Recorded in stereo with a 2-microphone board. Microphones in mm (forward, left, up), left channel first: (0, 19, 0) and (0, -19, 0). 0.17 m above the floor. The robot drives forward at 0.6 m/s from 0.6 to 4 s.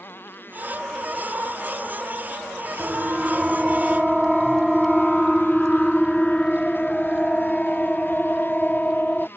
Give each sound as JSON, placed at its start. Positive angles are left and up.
{"t": 0.0, "sound": "a motorcycle", "side_deg": 65}
{"t": 2.8, "sound": "a siren", "side_deg": -25}